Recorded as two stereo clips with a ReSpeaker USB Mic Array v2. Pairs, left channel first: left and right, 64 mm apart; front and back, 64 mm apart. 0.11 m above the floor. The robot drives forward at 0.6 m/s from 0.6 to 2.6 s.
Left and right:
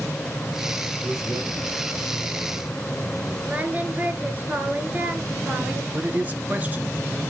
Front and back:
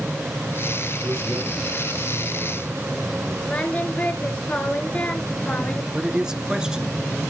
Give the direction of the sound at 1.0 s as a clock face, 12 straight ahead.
4 o'clock.